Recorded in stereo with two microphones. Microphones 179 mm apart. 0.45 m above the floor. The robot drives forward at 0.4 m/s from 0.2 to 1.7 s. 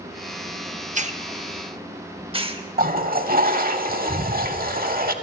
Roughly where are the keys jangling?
I don't hear keys jangling.